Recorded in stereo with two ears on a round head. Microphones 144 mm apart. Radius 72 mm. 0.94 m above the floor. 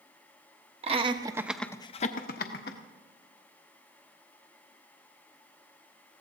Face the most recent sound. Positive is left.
turn(degrees=70)  # may be behind; listen again after turning